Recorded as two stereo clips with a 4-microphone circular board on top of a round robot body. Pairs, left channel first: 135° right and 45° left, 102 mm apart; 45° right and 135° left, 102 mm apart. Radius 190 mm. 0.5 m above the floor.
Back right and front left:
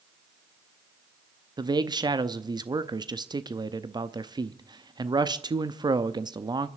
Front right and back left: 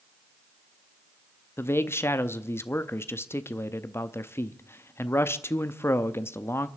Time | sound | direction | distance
1.6 | a man speaking | 15° left | 0.9 m